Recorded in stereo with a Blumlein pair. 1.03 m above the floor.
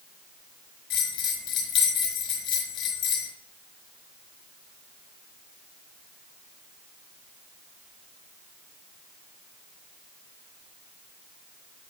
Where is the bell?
30° left, 4.5 m.